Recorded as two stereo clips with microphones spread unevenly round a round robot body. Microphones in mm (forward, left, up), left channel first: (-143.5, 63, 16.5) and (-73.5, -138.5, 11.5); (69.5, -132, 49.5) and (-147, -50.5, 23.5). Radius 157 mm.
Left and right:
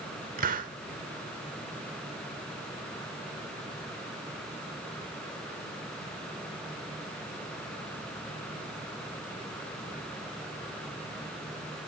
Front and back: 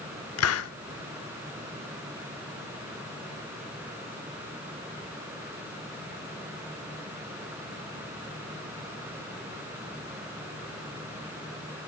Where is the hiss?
15° right, 1.0 m.